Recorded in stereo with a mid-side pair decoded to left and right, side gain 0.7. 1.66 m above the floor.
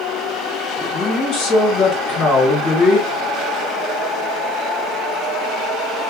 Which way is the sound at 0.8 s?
55° left.